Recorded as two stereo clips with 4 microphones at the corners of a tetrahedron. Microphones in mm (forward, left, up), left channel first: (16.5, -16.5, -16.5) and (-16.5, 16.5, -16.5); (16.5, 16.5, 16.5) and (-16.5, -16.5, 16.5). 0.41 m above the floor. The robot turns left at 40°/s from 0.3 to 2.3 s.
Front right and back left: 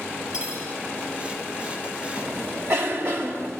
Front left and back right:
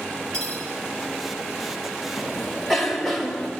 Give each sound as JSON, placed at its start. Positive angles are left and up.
{"t": 0.3, "sound": "cutlery clinking", "azimuth_deg": -155, "distance_m": 4.5}
{"t": 2.2, "sound": "a cough", "azimuth_deg": 135, "distance_m": 2.5}